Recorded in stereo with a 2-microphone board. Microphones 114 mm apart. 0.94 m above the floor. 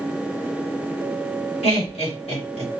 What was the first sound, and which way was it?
Laughter, 65° left (ahead or behind).